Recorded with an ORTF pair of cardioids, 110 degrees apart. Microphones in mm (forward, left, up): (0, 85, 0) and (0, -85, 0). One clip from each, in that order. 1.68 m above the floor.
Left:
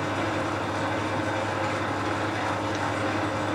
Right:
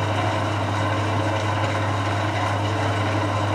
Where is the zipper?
No zipper in this recording.